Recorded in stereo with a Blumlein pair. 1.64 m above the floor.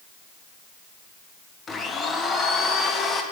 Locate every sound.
1.7 s a blender: 15° left, 1.0 m